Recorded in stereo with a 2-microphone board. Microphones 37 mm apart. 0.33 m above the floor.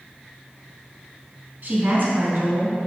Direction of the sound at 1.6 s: 45° right (ahead or behind).